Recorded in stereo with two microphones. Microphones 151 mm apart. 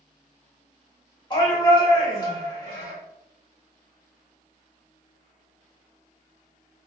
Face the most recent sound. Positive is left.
turn(degrees=30)  # may be behind; listen again after turning